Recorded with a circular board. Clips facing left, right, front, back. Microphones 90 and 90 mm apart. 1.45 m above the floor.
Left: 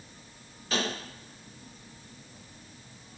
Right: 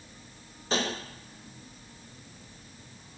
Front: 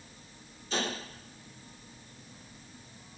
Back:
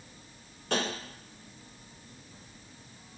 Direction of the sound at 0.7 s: 150° right.